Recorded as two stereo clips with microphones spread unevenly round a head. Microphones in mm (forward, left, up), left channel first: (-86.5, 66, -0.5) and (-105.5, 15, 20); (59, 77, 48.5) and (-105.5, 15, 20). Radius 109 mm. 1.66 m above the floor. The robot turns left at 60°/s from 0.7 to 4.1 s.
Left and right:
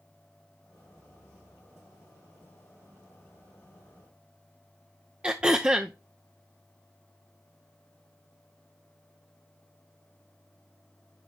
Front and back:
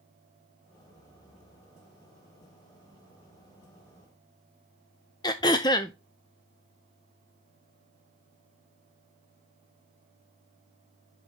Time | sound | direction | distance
5.2 | throat clearing | 45° right | 0.5 m